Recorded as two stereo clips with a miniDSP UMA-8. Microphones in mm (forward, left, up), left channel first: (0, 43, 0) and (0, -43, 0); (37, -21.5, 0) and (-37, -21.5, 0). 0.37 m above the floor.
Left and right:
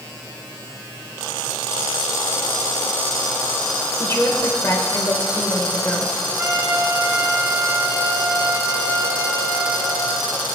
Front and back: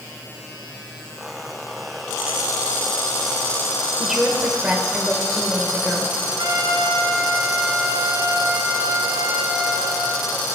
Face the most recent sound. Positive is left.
turn(degrees=-155)